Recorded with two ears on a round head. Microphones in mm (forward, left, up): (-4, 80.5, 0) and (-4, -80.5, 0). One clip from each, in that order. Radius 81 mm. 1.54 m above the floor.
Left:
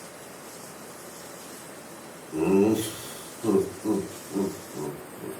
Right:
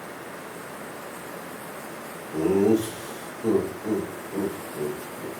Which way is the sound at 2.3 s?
75° left (ahead or behind).